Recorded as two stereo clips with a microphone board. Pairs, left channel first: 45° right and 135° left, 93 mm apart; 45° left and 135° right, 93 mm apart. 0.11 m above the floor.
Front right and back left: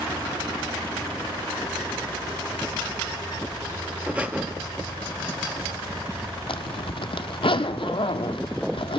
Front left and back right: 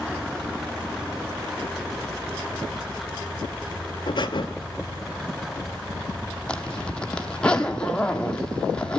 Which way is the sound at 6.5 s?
35° right.